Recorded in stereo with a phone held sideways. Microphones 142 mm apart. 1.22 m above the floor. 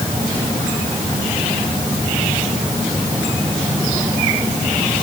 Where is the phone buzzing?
No phone buzzing in this recording.